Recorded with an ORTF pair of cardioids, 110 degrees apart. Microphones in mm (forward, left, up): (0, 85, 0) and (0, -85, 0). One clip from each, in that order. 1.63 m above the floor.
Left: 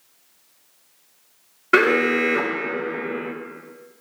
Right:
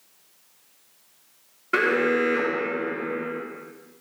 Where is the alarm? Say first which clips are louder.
Left 4 dB; 40° left, 1.6 m.